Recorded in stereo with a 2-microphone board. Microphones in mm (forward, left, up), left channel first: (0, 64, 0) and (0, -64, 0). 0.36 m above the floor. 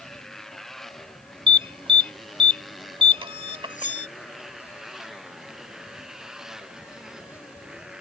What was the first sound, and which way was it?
A motorcycle, 5° left (ahead or behind).